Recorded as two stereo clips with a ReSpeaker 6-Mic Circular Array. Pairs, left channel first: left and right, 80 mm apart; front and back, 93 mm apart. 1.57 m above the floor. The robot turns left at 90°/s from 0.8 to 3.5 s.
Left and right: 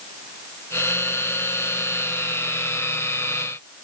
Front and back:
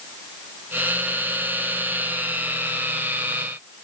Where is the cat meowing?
I don't hear a cat meowing.